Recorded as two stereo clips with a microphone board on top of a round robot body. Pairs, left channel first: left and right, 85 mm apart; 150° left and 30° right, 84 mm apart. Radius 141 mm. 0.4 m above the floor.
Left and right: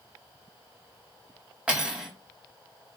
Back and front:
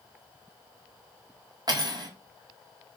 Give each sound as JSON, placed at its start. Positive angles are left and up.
{"t": 1.7, "sound": "cutlery clinking", "azimuth_deg": -15, "distance_m": 0.8}